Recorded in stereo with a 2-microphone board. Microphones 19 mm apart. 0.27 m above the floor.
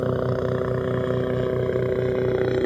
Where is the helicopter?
20° left (ahead or behind); by 2.7 s 30° left (ahead or behind).